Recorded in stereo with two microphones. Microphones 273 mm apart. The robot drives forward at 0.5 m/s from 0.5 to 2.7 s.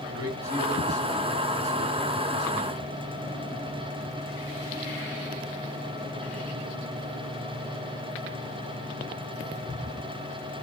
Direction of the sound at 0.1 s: 10° right (ahead or behind).